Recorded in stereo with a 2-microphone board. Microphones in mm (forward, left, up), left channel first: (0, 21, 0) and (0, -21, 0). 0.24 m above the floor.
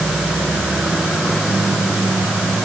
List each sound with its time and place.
Only background noise.